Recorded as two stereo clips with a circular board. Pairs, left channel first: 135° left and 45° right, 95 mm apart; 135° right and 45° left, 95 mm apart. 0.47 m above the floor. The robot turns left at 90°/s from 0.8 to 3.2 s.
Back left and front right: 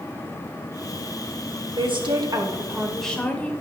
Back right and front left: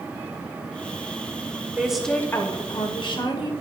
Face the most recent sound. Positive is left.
turn(degrees=-155)